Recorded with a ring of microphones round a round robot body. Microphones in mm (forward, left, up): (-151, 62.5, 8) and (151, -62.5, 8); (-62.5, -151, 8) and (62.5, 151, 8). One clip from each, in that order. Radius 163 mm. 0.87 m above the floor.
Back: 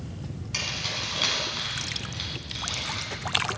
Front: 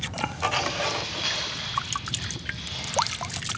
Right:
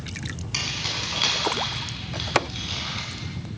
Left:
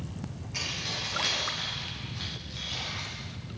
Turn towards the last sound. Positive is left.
turn(degrees=-165)